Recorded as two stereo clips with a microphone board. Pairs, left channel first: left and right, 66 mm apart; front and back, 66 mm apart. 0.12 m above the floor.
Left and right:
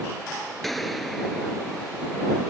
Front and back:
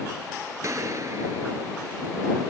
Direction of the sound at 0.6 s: Straight behind.